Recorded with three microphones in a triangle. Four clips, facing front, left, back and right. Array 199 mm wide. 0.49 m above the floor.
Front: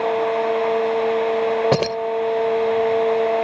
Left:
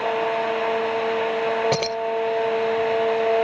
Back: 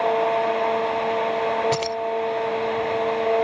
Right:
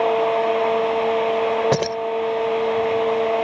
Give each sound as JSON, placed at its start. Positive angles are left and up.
{"t": 1.7, "sound": "keys jangling", "azimuth_deg": -15}